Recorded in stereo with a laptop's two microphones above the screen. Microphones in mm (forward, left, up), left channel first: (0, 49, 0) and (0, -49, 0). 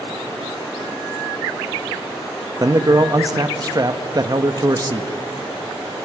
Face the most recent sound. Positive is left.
turn(degrees=-40)  # may be behind; listen again after turning